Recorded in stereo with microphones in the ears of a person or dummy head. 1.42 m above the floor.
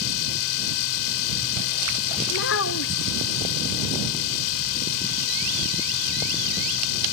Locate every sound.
0.0 s a machine running: 80° left
2.3 s a child speaking: 50° left (ahead or behind)